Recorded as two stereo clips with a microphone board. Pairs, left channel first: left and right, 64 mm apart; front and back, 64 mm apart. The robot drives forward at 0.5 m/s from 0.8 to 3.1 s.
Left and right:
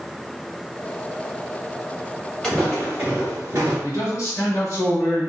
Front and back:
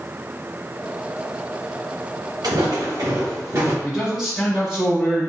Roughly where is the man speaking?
Left.